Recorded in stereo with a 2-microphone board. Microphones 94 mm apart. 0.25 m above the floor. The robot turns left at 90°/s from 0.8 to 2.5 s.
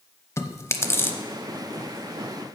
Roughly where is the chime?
I don't hear a chime.